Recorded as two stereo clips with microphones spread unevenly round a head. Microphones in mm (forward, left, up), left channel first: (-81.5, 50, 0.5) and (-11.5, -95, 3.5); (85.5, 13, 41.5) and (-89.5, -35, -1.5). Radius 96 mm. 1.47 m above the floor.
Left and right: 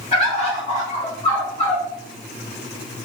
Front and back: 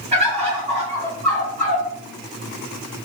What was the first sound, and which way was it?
A bird, 130° left.